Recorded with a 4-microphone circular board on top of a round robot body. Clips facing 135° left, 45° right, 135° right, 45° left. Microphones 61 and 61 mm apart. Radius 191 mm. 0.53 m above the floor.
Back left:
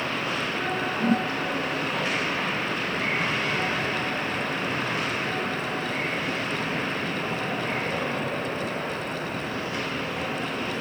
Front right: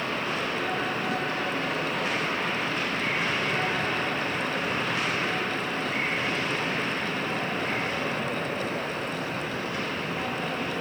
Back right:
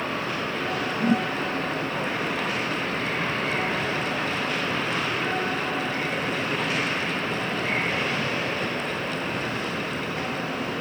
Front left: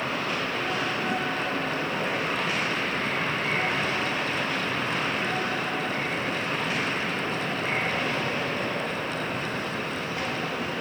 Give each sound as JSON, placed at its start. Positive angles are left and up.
{"t": 1.0, "sound": "a whoosh", "azimuth_deg": 180}